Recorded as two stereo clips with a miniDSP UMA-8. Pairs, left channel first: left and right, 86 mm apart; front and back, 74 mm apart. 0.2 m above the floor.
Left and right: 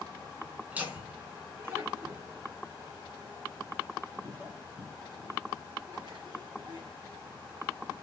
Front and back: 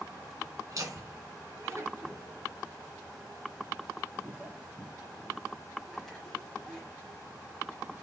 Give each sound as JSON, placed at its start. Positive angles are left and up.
{"t": 0.7, "sound": "laughter", "azimuth_deg": -160, "distance_m": 2.5}